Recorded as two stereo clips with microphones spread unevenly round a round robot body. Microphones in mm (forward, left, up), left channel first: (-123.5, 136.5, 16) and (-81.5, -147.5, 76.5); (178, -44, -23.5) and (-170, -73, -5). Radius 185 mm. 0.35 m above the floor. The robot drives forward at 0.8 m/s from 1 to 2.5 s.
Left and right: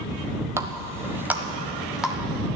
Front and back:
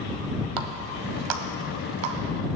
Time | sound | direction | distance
0.6 | a running tap | 170° right | 1.2 m